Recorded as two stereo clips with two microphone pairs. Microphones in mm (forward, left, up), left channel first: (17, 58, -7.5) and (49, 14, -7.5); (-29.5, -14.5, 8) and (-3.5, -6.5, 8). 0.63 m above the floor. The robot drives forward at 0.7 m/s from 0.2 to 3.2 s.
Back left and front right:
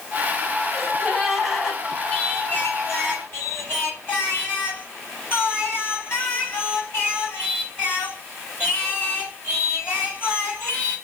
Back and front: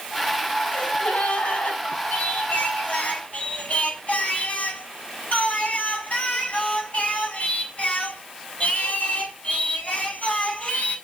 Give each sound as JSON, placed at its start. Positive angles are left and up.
{"t": 0.7, "sound": "a gasp", "azimuth_deg": -145, "distance_m": 3.5}
{"t": 2.1, "sound": "singing", "azimuth_deg": 180, "distance_m": 4.5}